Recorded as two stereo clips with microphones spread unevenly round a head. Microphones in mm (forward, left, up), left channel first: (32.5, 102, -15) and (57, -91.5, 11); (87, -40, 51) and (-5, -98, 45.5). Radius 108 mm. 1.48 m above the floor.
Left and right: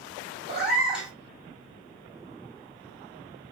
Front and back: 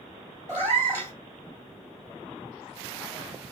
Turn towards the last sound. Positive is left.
turn(degrees=-145)